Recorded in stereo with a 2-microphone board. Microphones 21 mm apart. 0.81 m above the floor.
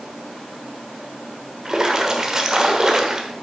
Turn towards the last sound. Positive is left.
turn(degrees=-35)  # may be behind; listen again after turning